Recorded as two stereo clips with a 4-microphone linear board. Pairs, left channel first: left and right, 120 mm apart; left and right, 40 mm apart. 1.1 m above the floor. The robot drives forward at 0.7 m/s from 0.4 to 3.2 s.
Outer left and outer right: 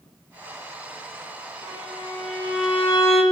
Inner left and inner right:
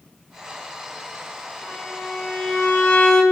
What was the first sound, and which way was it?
A violin, 35° left (ahead or behind).